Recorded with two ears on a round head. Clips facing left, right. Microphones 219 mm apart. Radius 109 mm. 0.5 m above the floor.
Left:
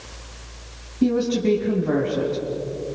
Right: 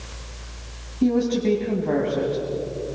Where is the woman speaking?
10° left (ahead or behind), 3.5 m.